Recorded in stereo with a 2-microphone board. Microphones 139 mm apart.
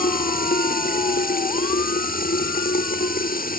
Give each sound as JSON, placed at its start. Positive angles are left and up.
{"t": 0.0, "sound": "running water", "side_deg": 75}